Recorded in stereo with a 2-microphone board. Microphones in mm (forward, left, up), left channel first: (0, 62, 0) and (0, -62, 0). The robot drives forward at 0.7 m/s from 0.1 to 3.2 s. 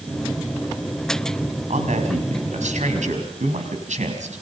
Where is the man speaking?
75° right (ahead or behind), 4 m.